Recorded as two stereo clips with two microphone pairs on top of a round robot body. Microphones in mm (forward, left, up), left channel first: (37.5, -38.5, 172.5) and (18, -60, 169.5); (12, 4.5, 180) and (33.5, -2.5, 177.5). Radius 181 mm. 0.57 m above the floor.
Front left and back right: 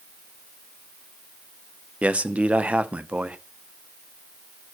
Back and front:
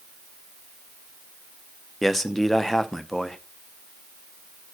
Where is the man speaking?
105° right, 1.3 m.